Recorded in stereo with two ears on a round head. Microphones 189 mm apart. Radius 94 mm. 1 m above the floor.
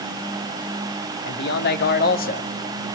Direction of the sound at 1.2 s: 55° left (ahead or behind).